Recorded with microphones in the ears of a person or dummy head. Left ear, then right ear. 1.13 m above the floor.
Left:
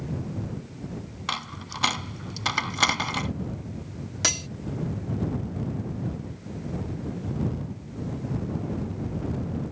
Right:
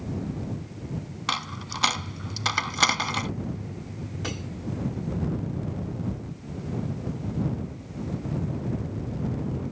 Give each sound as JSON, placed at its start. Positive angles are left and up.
{"t": 1.3, "sound": "a dropped coin", "side_deg": -10}
{"t": 4.2, "sound": "cutlery clinking", "side_deg": 65}